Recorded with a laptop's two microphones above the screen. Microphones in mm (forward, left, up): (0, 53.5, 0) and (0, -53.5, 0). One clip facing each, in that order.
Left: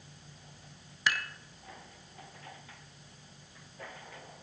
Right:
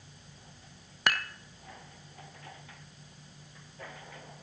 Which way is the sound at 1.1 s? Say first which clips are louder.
Right 2 dB; 60° right (ahead or behind).